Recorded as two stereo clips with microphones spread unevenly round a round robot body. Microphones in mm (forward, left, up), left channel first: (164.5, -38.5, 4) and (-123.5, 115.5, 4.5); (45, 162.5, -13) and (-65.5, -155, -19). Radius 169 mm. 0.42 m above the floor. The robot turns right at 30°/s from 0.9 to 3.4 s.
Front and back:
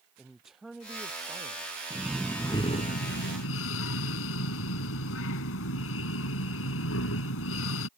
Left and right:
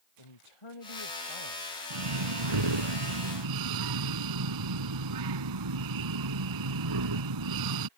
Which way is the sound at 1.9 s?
125° right.